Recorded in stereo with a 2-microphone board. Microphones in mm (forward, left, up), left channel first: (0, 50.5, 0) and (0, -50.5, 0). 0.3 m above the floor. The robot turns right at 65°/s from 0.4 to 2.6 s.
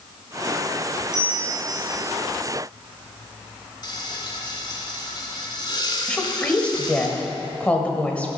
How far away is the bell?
About 3.5 m.